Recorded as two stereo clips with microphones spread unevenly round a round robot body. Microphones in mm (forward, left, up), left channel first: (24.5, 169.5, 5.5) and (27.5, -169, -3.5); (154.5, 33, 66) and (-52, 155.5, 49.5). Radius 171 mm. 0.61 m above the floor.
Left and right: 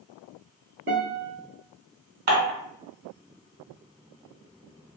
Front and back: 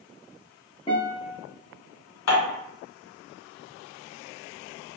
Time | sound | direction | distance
0.9 | a guitar | 90° right | 0.8 m
2.3 | dishes clattering | 30° right | 1.3 m